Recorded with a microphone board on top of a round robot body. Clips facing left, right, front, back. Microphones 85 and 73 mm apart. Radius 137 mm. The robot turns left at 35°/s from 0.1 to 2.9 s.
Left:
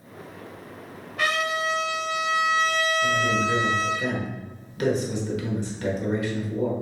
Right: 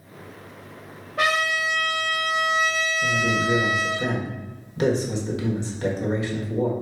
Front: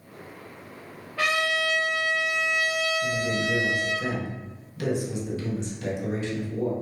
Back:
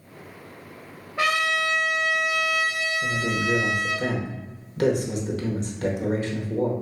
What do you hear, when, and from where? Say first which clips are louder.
1.2 s a trumpet: right 2 dB, back 2 dB; 110° right, 0.7 m; by 4.0 s 170° right, 0.7 m
3.0 s a man speaking: even, back 1 dB; 150° right, 1.2 m